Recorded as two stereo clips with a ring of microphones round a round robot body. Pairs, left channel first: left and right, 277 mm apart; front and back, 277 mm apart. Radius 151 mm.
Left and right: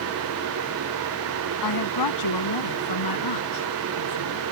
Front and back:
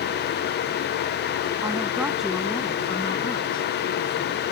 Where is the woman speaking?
100° left; by 4.5 s 70° left.